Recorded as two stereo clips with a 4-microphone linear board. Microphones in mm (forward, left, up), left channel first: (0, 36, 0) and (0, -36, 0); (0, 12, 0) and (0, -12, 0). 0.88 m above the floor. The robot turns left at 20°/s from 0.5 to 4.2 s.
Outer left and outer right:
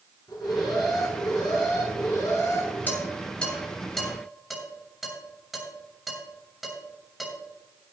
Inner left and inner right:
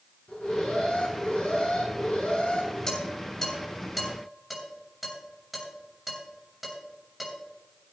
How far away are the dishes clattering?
About 7 m.